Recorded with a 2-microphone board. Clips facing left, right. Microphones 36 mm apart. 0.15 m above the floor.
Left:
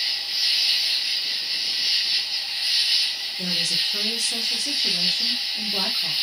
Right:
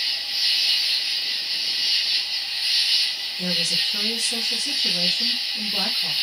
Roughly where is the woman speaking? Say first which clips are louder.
Right 1 dB; centre.